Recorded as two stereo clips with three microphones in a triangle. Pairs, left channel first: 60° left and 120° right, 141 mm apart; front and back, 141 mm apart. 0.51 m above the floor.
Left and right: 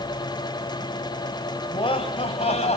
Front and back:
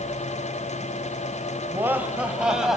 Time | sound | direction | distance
1.7 | laughter | 110° left | 2.5 m